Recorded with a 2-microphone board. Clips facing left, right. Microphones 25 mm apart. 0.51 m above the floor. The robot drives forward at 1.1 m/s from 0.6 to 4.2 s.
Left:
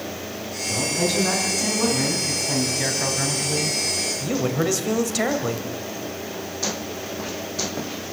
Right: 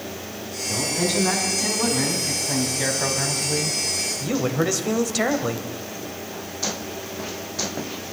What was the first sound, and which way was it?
A man speaking, centre (ahead or behind).